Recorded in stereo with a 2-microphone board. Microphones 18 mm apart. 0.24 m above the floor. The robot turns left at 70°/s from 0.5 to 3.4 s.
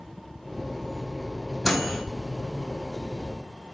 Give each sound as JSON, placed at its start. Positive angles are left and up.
{"t": 1.6, "sound": "a microwave", "side_deg": 0, "distance_m": 1.0}